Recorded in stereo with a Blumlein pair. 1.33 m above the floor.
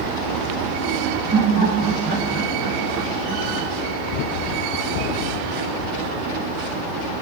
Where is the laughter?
25° right, 2 m; by 3.7 s 10° right, 0.9 m.